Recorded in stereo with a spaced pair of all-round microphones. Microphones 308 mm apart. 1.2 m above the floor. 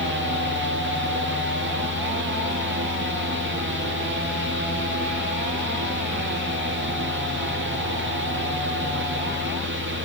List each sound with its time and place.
0.0 s a fan: 35° right (ahead or behind), 2 m